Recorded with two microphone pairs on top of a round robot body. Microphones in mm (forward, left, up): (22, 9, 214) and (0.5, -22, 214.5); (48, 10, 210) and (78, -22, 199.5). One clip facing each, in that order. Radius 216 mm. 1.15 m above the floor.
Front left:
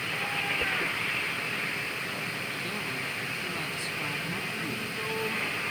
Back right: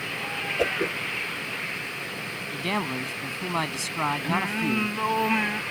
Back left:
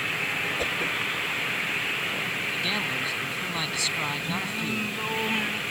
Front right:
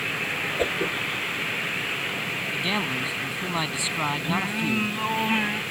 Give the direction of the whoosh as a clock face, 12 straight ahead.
4 o'clock.